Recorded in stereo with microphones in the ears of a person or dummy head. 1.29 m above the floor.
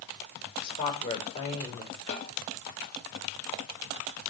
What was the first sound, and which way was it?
A woman speaking, 35° left (ahead or behind).